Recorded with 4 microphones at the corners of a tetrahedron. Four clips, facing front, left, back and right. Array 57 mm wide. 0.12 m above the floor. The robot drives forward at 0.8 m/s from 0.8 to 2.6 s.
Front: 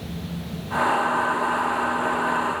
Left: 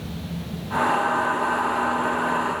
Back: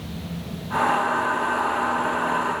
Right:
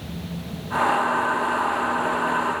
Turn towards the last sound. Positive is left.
No sound to turn to.